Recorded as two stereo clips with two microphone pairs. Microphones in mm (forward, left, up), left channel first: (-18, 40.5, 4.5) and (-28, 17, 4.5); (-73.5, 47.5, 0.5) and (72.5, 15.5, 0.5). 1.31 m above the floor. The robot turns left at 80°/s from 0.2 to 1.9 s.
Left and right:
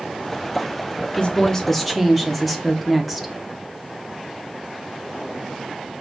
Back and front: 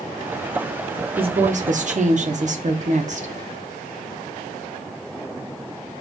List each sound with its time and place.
1.2 s a woman speaking: 35° left, 0.7 m; by 3.3 s 20° right, 0.7 m